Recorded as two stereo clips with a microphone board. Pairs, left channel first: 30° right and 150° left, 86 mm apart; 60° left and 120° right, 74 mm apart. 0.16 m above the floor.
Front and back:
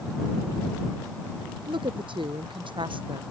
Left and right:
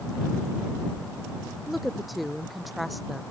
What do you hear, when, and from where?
1.7 s a woman speaking: 150° left